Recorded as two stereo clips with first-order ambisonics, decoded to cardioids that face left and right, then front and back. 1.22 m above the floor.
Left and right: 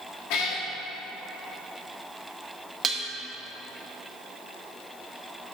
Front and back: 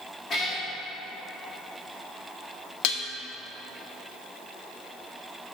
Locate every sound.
0.3 s a cat meowing: 70° left, 1.5 m
2.8 s dishes clattering: 20° right, 0.8 m